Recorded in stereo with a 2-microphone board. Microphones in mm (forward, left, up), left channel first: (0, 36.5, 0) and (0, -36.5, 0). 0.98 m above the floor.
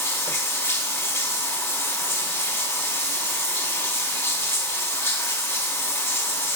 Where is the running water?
35° left (ahead or behind), 1.0 m.